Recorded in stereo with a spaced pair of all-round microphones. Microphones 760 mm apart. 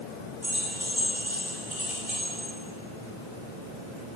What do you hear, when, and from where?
0.4 s keys jangling: 60° right (ahead or behind), 8 m; by 2.5 s 50° right (ahead or behind), 8.5 m